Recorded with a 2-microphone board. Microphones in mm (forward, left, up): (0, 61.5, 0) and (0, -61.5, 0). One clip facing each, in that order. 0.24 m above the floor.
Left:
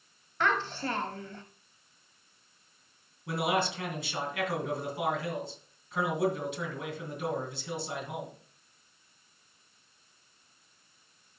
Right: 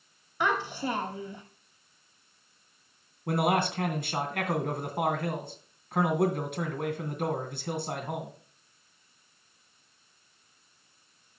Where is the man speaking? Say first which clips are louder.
Right 3 dB; 55° right (ahead or behind), 2.5 m.